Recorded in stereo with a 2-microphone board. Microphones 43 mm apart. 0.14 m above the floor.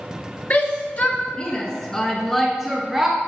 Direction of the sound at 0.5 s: 50° left (ahead or behind).